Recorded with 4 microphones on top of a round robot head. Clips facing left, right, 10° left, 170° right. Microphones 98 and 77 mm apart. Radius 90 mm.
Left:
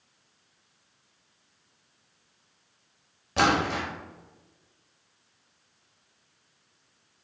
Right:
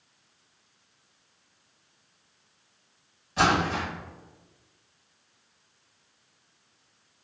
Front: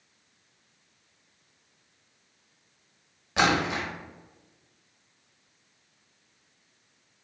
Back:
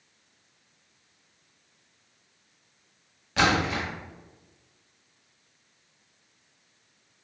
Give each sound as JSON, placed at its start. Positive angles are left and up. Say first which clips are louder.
{"t": 3.4, "sound": "a splash", "louder": "even, even", "azimuth_deg": 85, "distance_m": 0.8}